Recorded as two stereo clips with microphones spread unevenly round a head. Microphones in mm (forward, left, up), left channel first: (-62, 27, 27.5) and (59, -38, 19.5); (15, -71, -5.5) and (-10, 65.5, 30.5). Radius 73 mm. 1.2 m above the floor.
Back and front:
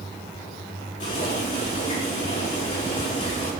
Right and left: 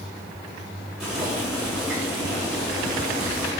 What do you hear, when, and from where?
1.0 s boiling: 175° right, 5 m